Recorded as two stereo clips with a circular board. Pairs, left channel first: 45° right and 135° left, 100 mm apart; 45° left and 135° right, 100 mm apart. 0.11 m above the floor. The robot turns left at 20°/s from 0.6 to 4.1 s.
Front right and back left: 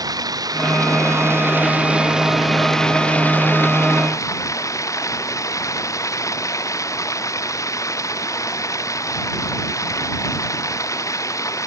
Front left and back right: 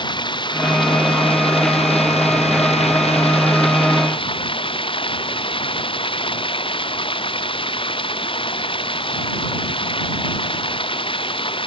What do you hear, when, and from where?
0.0 s running water: 85° left; by 11.7 s 15° left